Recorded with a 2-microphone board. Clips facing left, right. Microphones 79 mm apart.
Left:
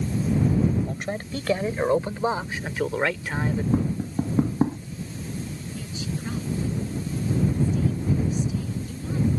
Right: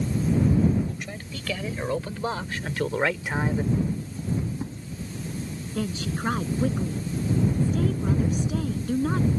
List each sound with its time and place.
0.9 s a man speaking: 50° left (ahead or behind); by 3.6 s 20° right (ahead or behind)
3.7 s tapping: 60° left (ahead or behind)
5.7 s a woman speaking: 65° right (ahead or behind)